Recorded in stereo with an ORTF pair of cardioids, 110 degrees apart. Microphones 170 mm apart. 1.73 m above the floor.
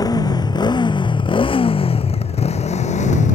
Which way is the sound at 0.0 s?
25° left.